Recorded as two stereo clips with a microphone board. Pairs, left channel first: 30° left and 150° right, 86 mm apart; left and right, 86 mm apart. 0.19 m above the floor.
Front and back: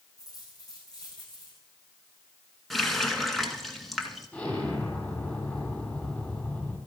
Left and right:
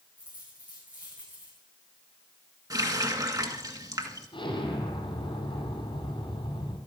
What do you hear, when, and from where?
0.2 s a dropped coin: 15° right, 7.5 m
2.7 s a running tap: 60° right, 1.6 m
4.3 s an explosion: 100° left, 4.5 m